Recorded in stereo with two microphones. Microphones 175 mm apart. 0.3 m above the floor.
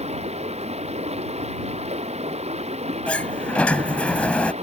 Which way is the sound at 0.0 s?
35° right (ahead or behind).